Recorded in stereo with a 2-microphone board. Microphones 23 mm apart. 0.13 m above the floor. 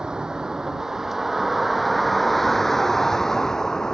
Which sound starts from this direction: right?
A vehicle, at 0.0 s.